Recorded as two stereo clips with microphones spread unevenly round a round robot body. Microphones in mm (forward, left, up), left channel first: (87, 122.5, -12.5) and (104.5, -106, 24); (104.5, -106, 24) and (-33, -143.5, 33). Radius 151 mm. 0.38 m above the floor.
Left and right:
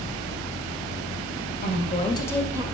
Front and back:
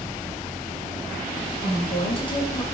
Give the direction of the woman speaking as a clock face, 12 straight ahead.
10 o'clock.